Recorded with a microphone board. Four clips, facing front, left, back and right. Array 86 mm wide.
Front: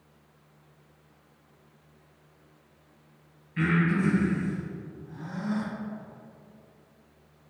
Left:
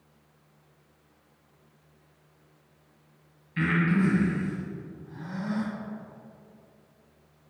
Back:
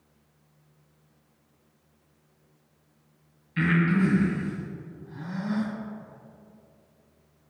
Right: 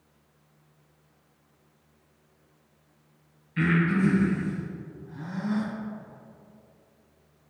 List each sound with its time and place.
3.6 s breathing: 165° left, 1.6 m